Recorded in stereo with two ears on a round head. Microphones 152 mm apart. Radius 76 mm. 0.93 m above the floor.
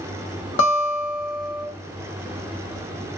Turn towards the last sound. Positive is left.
turn(degrees=75)  # may be behind; listen again after turning